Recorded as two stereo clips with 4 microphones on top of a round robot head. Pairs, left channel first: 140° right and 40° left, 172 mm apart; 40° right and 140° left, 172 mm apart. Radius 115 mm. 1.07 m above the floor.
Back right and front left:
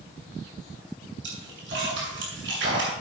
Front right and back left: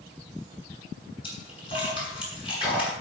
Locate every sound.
1.2 s a splash: 20° left, 7 m